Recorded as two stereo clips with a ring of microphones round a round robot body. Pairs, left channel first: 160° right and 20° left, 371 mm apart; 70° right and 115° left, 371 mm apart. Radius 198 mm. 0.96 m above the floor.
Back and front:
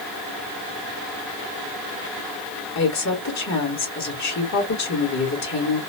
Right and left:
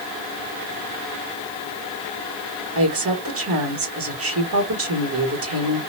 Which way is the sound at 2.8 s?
160° left.